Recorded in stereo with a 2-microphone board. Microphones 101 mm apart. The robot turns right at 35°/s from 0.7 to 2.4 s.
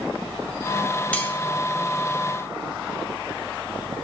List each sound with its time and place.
1.1 s cutlery clinking: 15° left (ahead or behind), 1.5 m; by 1.3 s 20° left (ahead or behind), 1.5 m